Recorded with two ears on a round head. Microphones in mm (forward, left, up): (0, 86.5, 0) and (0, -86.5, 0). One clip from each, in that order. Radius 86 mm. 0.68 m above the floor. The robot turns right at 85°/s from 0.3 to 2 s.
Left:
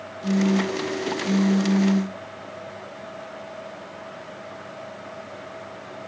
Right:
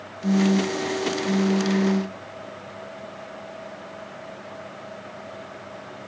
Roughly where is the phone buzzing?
Right.